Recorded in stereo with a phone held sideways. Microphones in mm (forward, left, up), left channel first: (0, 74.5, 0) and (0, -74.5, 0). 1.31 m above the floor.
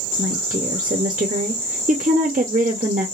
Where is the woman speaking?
60° right (ahead or behind), 0.6 m.